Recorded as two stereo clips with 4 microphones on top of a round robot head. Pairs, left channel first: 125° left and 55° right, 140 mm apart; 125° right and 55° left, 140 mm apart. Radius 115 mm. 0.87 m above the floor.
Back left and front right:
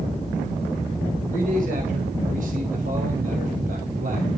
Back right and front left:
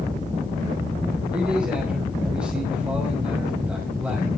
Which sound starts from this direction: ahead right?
A man speaking, at 1.3 s.